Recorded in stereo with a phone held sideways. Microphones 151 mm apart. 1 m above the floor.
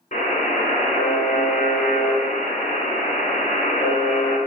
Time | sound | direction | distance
0.1 | a buzzer | 50° left (ahead or behind) | 2.0 m